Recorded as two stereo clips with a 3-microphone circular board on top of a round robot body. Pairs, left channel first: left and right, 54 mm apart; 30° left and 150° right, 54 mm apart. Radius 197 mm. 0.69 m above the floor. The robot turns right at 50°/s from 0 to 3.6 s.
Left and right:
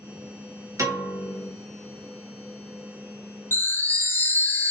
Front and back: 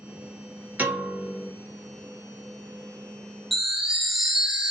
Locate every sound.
0.8 s a piano: 95° right, 1.0 m; by 1.5 s 60° right, 1.0 m
3.5 s a chime: 120° left, 0.8 m; by 4.7 s 125° left, 0.8 m